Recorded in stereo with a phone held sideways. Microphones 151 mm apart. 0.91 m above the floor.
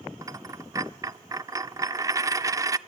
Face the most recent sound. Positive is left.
turn(degrees=-25)  # may be behind; listen again after turning